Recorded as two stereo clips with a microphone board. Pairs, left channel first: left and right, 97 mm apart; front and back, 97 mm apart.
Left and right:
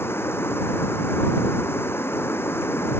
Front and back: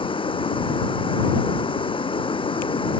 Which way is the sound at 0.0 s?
25° left.